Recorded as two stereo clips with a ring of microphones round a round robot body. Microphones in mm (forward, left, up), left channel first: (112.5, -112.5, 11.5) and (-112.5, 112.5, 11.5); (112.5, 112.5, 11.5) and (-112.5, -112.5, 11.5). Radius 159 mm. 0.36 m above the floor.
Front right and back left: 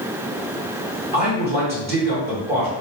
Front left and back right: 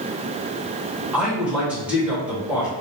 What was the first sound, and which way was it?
A man speaking, 145° left.